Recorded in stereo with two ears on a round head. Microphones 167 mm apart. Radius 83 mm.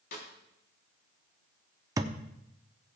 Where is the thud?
20° right (ahead or behind), 0.7 m.